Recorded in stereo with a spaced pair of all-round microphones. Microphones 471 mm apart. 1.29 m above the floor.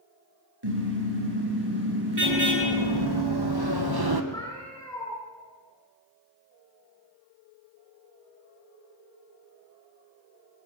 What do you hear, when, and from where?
0.6 s a car horn: 60° right (ahead or behind), 9.5 m
2.2 s running footsteps: 60° right (ahead or behind), 4 m; by 4.2 s 55° right (ahead or behind), 2 m
4.3 s a cat meowing: 10° left (ahead or behind), 8 m